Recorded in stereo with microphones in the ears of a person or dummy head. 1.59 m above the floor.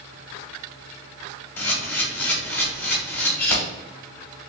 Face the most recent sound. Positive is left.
turn(degrees=10)  # may be behind; listen again after turning